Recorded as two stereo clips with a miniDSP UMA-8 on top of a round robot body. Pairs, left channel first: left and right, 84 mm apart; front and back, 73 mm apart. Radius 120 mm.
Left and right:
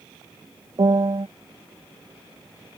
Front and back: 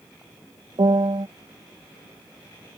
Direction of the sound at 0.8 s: 145° right.